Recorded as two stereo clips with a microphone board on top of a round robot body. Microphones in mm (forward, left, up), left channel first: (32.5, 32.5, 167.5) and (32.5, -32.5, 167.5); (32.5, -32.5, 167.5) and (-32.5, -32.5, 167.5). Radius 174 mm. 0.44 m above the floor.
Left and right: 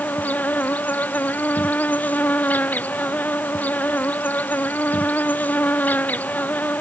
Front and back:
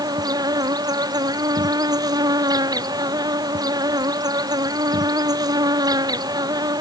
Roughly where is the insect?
Behind.